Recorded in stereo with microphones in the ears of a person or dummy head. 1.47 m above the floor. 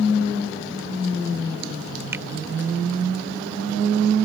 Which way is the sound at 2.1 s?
10° right (ahead or behind).